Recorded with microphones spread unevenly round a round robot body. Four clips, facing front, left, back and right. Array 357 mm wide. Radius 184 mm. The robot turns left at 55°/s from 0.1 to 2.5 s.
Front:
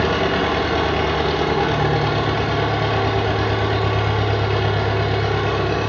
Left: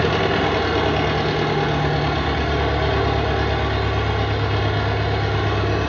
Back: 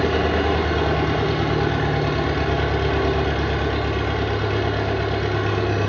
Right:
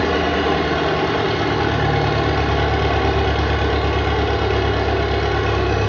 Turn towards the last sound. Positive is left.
turn(degrees=-60)